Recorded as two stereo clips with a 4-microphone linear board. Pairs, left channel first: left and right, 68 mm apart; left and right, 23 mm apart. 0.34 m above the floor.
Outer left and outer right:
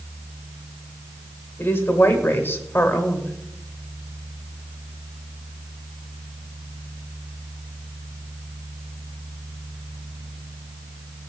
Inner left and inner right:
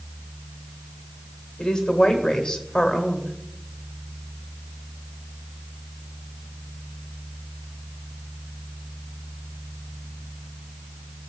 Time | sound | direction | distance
1.6 | a woman speaking | 35° left (ahead or behind) | 1.4 m